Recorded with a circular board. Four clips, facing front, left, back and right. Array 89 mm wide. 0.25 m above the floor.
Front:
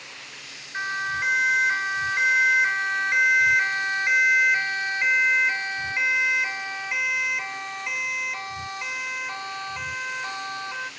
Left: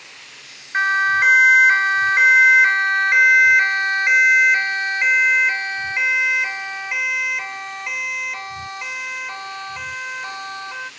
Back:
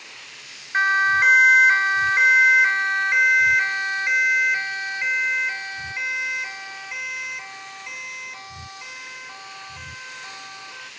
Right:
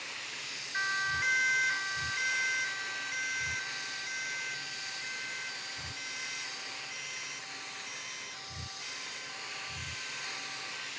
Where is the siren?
130° left; by 10.9 s 60° left.